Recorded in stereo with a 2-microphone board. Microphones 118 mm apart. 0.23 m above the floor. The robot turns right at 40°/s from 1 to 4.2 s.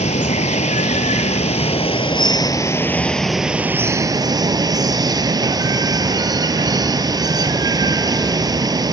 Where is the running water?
85° left, 0.8 m; by 8.9 s 145° right, 0.8 m.